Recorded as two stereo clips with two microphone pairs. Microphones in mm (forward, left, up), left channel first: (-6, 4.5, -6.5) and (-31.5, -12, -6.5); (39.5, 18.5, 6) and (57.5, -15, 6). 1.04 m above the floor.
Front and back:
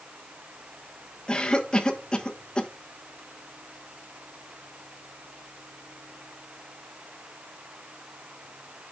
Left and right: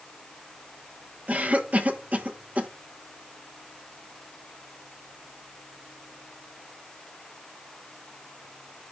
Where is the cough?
20° right, 1.3 m.